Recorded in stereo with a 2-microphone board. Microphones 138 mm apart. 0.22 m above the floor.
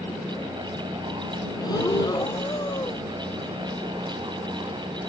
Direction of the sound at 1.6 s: 30° left (ahead or behind).